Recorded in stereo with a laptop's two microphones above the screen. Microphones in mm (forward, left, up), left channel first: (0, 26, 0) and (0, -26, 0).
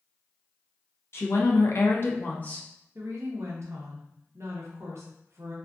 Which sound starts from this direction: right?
A woman speaking, at 3.0 s.